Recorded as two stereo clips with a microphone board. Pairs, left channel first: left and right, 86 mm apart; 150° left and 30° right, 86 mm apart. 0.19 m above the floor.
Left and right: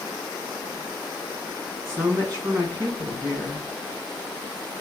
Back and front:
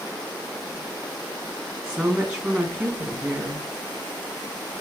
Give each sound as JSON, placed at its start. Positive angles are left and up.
{"t": 1.9, "sound": "a woman speaking", "azimuth_deg": -105, "distance_m": 1.9}